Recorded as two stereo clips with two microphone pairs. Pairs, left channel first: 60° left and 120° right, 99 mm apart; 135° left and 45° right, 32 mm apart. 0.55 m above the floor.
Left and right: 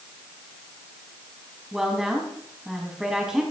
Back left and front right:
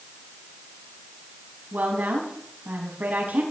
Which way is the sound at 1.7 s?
35° right.